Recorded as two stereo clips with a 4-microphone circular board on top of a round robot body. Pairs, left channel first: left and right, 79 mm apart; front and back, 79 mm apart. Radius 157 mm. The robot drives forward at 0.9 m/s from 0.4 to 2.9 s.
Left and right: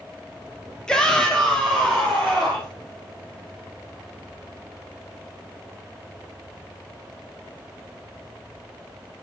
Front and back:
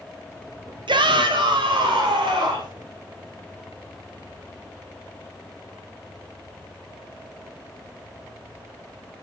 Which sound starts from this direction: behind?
A shout, at 0.9 s.